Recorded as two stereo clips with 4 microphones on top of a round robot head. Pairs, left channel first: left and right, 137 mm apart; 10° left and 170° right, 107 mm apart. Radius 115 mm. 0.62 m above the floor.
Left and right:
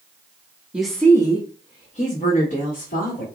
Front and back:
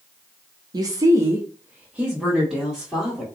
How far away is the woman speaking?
About 0.7 m.